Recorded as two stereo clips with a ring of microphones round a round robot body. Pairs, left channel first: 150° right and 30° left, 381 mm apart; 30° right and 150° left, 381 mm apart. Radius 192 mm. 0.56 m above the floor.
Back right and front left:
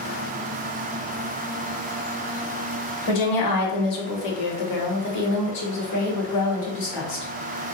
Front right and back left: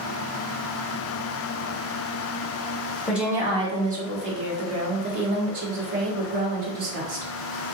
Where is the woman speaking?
120° right, 1.4 m; by 7.3 s 150° left, 2 m.